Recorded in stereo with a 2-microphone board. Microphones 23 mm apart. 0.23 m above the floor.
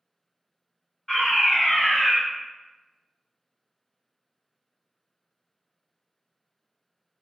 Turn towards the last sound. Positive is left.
turn(degrees=15)  # may be behind; listen again after turning